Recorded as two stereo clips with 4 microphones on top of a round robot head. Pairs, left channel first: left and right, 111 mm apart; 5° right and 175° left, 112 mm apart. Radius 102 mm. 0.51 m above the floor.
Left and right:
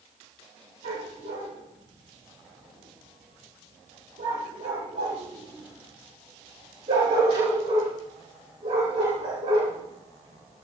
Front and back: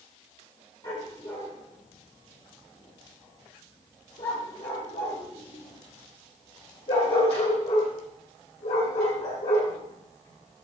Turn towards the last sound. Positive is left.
turn(degrees=-35)